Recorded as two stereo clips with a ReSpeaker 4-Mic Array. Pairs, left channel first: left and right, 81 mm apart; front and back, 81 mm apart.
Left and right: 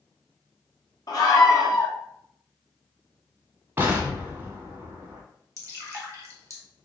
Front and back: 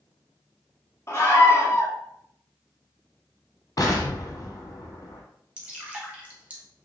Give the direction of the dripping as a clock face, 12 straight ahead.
4 o'clock.